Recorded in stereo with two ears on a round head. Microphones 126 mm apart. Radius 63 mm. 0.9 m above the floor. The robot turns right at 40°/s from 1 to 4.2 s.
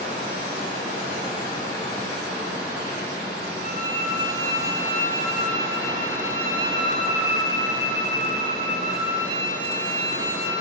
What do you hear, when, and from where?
0.0 s running water: 125° left, 1.2 m; by 10.6 s 105° right, 1.2 m
3.6 s a violin: 55° right (ahead or behind), 0.6 m; by 10.5 s 75° right (ahead or behind), 0.6 m